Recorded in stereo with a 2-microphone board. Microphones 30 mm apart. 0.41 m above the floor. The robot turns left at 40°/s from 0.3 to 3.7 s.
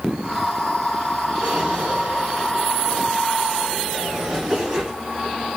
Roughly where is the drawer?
Ahead right.